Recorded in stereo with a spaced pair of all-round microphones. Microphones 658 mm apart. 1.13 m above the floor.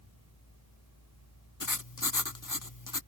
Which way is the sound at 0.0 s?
25° left (ahead or behind).